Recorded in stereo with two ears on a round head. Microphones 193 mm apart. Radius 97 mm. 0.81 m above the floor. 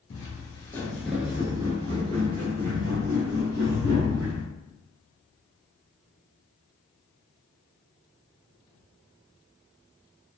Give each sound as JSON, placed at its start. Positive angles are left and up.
{"t": 0.1, "sound": "footsteps", "side_deg": 25, "distance_m": 1.0}